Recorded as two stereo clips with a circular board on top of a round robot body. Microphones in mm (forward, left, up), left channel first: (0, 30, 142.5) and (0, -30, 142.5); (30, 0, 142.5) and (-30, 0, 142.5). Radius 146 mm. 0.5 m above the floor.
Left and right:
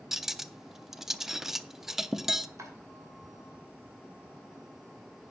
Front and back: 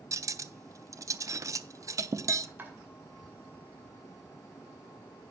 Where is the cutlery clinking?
175° right, 0.7 m.